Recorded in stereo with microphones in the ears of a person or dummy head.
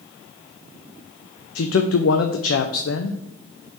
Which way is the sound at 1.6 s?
75° left (ahead or behind).